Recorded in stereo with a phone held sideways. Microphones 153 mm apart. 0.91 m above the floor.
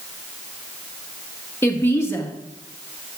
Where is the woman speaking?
15° left (ahead or behind), 1.4 m.